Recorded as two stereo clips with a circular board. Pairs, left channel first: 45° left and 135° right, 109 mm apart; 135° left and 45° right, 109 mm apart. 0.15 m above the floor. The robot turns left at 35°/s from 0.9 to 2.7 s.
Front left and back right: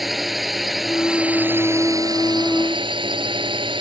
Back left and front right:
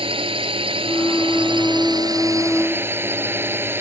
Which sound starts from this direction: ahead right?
A drone, at 0.0 s.